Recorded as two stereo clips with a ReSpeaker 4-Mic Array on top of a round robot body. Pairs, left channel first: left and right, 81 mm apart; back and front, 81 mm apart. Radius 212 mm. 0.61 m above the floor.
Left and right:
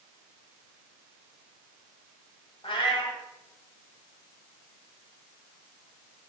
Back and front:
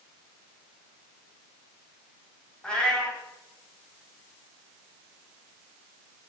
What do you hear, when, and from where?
2.6 s a cat meowing: 100° left, 1.7 m